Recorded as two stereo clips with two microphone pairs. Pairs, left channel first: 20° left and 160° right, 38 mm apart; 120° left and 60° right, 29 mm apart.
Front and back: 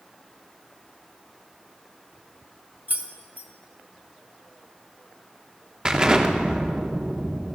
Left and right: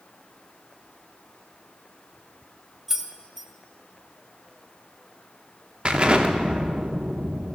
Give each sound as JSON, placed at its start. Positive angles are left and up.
{"t": 2.9, "sound": "keys jangling", "azimuth_deg": -135, "distance_m": 0.7}
{"t": 5.8, "sound": "an explosion", "azimuth_deg": -95, "distance_m": 0.6}